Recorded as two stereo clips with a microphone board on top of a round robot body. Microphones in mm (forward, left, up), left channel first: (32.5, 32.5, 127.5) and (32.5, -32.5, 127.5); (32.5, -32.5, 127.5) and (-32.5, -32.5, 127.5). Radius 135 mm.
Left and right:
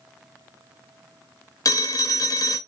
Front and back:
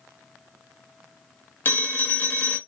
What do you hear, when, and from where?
1.6 s a phone ringing: 60° left, 0.9 m